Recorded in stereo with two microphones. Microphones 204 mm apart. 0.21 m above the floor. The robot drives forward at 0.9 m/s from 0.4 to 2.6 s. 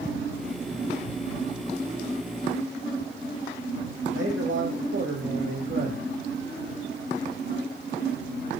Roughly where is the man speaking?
Right.